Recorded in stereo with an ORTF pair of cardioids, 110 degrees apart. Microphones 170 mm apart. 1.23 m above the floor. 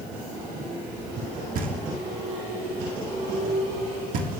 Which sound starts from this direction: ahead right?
Knocking, at 1.6 s.